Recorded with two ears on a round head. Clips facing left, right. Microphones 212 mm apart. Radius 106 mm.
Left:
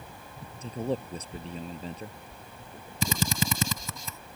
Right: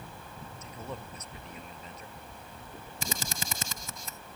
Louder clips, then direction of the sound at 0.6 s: Left 12 dB; 30° left (ahead or behind).